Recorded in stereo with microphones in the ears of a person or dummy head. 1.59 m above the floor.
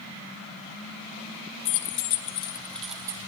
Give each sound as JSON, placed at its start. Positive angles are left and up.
{"t": 1.6, "sound": "keys jangling", "side_deg": 60, "distance_m": 0.8}